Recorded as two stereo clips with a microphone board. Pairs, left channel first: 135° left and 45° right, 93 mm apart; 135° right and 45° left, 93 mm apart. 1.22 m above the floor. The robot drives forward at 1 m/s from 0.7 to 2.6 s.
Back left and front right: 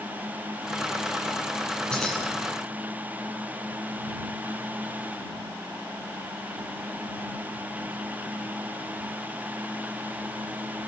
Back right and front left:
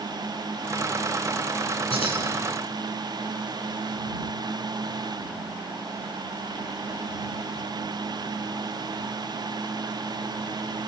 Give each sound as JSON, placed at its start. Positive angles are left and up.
{"t": 1.9, "sound": "keys jangling", "azimuth_deg": -145, "distance_m": 9.5}